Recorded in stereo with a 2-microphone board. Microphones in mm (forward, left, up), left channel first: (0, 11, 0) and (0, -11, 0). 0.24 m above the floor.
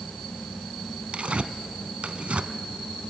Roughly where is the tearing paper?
Right.